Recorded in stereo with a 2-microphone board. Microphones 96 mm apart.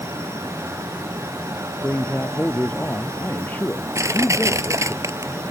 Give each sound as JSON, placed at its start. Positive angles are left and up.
{"t": 1.8, "sound": "a man speaking", "side_deg": 15}
{"t": 4.0, "sound": "crushing", "side_deg": -30}